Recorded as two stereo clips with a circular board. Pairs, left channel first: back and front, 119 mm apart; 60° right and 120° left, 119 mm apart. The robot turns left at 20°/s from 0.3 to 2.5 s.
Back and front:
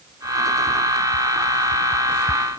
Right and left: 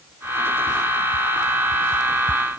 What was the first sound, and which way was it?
Only background noise.